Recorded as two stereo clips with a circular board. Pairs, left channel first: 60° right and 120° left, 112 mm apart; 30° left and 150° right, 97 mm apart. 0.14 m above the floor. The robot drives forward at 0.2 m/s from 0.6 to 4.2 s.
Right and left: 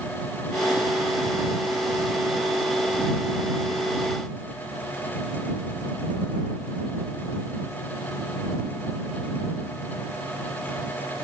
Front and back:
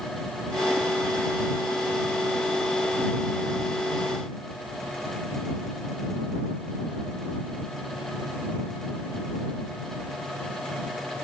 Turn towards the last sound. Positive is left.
No sound to turn to.